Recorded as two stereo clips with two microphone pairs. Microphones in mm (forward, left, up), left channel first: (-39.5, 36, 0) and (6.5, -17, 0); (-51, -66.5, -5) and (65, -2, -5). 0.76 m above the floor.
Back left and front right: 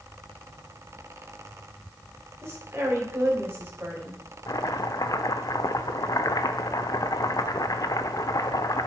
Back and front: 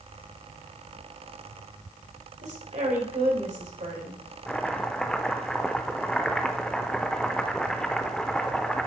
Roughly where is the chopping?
Behind left.